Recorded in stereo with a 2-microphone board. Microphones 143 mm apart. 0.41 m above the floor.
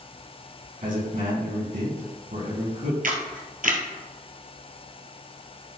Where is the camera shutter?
75° right (ahead or behind), 1.6 m.